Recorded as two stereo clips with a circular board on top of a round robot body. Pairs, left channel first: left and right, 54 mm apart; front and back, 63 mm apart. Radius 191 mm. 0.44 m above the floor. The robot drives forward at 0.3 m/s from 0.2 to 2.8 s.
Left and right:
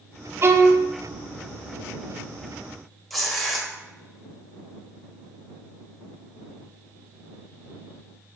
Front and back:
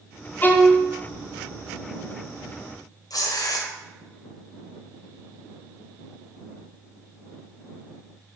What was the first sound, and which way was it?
A violin, 55° right.